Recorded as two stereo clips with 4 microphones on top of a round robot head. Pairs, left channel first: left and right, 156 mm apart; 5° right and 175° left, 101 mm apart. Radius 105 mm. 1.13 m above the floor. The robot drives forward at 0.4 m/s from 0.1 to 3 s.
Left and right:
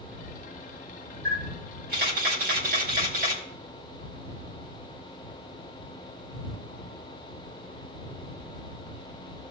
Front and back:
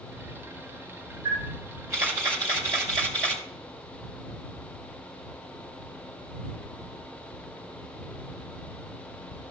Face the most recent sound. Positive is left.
turn(degrees=-120)